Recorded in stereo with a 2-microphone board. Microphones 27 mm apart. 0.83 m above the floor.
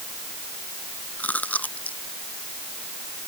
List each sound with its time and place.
1.2 s chewing: 85° left